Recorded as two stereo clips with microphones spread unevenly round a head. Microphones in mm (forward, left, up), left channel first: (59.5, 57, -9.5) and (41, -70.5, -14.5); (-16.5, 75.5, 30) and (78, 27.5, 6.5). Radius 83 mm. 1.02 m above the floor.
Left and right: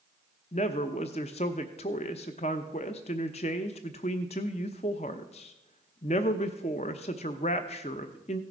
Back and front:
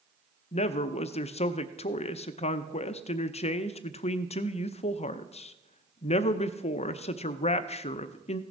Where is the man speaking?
130° left, 0.7 m.